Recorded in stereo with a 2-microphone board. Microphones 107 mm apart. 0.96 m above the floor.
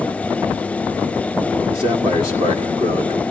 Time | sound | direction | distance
1.7 | a man speaking | 55° right (ahead or behind) | 1.9 m